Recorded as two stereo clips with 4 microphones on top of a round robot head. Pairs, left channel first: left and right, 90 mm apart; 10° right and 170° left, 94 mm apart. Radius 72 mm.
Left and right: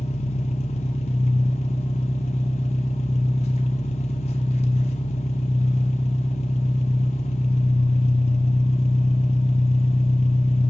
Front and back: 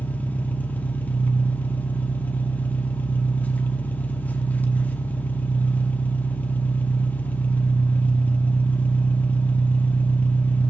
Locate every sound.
0.0 s an engine running: 65° left, 1.0 m